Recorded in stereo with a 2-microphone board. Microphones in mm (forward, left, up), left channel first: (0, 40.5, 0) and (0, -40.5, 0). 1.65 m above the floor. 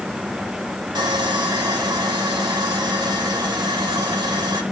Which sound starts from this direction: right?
Sawing, at 0.9 s.